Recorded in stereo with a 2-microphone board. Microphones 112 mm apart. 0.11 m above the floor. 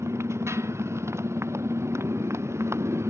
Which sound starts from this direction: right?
A motorcycle, at 0.0 s.